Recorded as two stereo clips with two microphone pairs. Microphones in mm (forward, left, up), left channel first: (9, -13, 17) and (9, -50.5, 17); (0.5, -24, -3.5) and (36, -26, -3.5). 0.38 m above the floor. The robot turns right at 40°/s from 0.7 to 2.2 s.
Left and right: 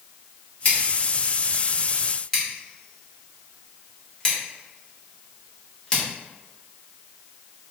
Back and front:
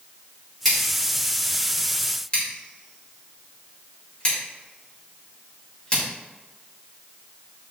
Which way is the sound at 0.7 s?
95° left.